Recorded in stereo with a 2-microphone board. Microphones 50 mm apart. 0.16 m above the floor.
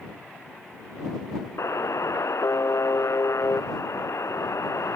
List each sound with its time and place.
1.6 s a buzzer: 80° left